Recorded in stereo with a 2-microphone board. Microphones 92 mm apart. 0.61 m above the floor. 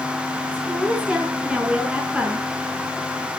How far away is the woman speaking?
About 7.5 m.